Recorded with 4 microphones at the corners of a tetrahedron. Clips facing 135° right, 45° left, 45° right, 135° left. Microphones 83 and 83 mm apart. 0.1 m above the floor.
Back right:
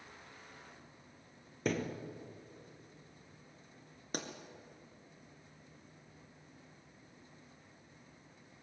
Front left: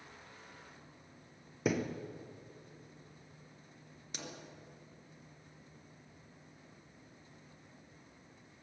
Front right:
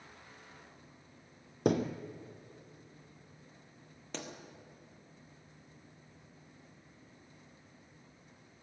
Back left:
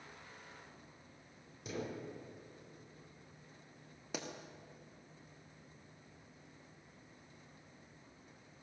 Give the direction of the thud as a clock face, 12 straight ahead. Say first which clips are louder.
Front left 2 dB, front right 13 dB; 1 o'clock.